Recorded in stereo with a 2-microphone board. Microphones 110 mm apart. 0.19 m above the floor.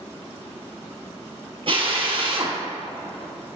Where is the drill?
55° right (ahead or behind), 1.6 m.